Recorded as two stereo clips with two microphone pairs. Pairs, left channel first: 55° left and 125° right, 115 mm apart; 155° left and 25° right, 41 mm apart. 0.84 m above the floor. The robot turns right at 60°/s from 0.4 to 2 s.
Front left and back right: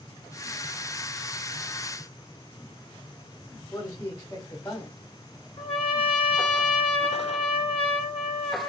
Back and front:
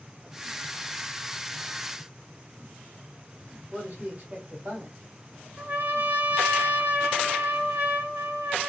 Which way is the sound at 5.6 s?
10° left.